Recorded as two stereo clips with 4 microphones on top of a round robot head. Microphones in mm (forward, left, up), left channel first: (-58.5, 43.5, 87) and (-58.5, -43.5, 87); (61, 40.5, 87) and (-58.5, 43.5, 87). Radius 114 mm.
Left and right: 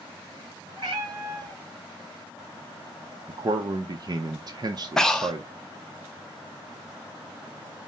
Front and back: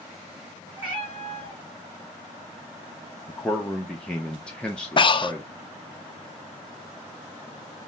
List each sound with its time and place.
0.8 s a cat meowing: 125° right, 3 m
3.3 s a man speaking: 80° right, 0.6 m
5.0 s breathing: 10° left, 0.5 m